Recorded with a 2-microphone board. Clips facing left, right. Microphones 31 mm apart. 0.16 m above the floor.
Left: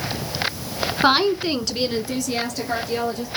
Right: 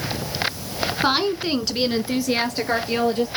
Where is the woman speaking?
20° left (ahead or behind), 1.3 m; by 3.3 s 40° right (ahead or behind), 3 m.